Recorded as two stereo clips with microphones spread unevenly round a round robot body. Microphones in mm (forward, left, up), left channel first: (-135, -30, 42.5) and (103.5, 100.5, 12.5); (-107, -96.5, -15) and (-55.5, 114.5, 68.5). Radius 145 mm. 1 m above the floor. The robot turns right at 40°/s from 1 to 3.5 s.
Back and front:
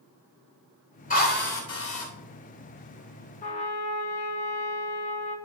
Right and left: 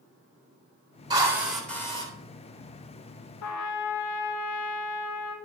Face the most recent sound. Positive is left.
turn(degrees=-85)